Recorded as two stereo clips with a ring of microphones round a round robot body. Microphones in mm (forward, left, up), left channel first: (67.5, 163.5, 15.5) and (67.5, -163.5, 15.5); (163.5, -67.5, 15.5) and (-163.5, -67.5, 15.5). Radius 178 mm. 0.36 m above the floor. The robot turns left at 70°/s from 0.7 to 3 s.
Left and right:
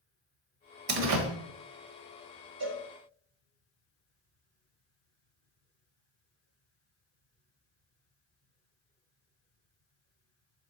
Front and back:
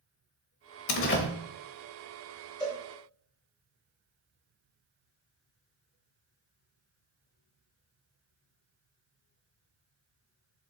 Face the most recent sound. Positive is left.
turn(degrees=-105)